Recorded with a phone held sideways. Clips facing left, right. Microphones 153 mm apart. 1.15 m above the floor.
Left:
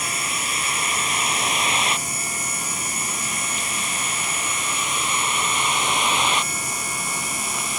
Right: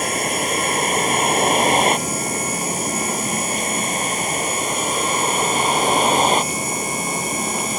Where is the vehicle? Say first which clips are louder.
Right 9 dB; 55° right (ahead or behind); by 7.8 s 45° right (ahead or behind).